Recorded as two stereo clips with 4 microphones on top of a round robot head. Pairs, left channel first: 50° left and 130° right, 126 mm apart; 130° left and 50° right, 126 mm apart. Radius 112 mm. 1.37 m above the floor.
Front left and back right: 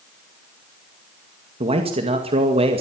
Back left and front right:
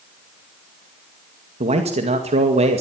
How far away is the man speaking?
About 2 m.